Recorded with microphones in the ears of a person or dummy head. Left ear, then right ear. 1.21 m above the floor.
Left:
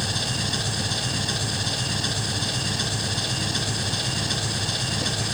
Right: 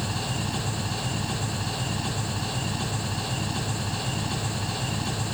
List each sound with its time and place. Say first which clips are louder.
0.0 s an engine running: left 5 dB; 25° left (ahead or behind), 4 m